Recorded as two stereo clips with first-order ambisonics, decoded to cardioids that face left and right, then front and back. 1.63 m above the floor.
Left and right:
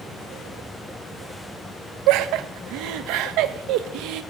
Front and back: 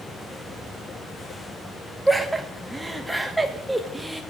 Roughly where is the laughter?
Right.